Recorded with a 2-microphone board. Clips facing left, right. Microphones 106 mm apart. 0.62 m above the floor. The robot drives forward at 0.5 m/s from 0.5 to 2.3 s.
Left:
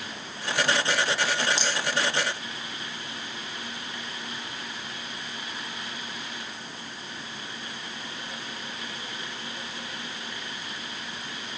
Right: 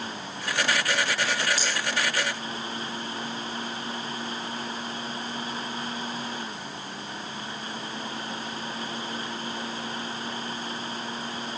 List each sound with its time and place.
1.6 s a rattle: 30° left (ahead or behind), 3 m; by 1.8 s 25° left (ahead or behind), 3 m